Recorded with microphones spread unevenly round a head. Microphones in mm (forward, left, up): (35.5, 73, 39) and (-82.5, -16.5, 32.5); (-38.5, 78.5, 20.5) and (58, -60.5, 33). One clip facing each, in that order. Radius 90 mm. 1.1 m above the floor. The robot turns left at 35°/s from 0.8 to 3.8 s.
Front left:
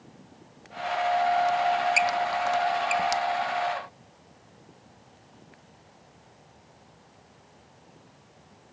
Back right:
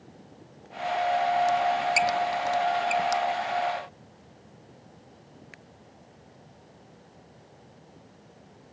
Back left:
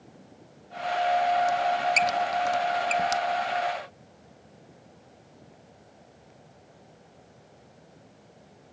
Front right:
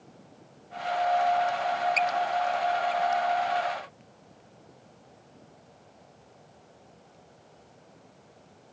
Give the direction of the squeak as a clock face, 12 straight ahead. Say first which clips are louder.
Even, back left 2 dB; 6 o'clock.